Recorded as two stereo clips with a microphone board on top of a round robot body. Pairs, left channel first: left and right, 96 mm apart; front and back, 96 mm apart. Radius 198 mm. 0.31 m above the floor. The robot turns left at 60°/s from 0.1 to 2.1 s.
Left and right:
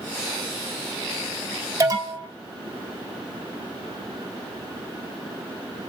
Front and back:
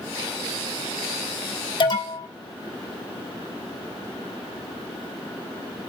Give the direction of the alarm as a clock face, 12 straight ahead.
1 o'clock.